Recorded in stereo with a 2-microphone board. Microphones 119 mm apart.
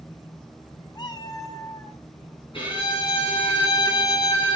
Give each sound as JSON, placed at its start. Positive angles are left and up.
{"t": 0.9, "sound": "a cat meowing", "side_deg": 35, "distance_m": 1.1}
{"t": 2.5, "sound": "a violin", "side_deg": 40, "distance_m": 8.0}